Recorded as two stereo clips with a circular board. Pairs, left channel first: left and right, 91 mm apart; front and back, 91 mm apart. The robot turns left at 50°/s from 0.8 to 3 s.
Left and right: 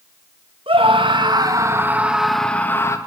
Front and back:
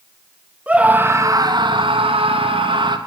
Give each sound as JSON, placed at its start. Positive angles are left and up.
{"t": 0.7, "sound": "a scream", "azimuth_deg": -105, "distance_m": 2.5}